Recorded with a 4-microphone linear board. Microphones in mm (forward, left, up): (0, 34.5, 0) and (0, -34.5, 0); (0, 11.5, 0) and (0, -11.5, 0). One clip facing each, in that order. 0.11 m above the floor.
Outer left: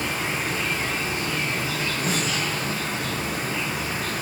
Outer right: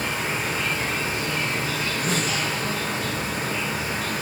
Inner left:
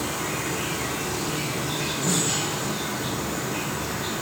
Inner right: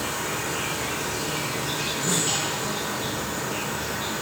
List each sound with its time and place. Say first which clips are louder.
0.0 s an insect: even, even; 60° right (ahead or behind), 2 m
2.1 s a snare drum: outer right 1 dB, even; 10° left (ahead or behind), 1.9 m